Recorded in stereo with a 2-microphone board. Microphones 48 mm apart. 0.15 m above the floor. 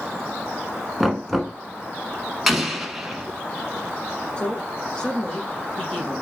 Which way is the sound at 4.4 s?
20° left (ahead or behind).